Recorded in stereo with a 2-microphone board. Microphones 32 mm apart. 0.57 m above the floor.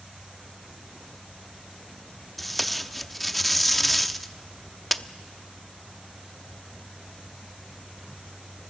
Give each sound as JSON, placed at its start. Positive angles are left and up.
{"t": 2.4, "sound": "tape being pulled", "side_deg": 5, "distance_m": 0.6}